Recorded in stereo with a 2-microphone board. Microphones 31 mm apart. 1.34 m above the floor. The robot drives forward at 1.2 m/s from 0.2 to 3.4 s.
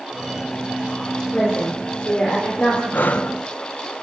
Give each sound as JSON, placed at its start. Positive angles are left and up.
{"t": 1.3, "sound": "a woman speaking", "side_deg": 45, "distance_m": 5.0}
{"t": 2.9, "sound": "breathing", "side_deg": 65, "distance_m": 1.1}